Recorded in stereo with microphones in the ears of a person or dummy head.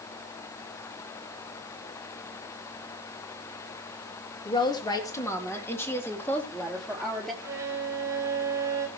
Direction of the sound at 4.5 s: 25° left (ahead or behind).